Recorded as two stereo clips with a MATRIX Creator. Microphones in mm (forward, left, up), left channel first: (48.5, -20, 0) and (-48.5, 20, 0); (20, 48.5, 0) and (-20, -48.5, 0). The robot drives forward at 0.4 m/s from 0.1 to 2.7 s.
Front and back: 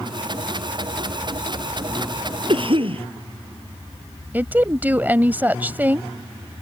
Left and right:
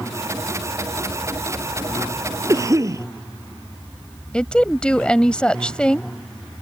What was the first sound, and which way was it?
A cough, 170° right.